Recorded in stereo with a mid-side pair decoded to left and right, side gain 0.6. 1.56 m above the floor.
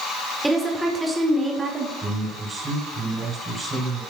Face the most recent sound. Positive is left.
turn(degrees=-30)